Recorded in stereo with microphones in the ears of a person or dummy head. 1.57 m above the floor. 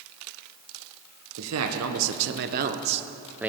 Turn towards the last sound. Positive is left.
turn(degrees=-5)  # may be behind; listen again after turning